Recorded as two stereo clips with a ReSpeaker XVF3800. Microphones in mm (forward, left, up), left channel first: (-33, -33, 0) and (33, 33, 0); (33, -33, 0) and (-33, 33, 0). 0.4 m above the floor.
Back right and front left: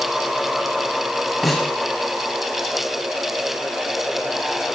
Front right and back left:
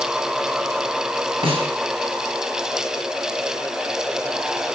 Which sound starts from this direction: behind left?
A snare drum, at 1.4 s.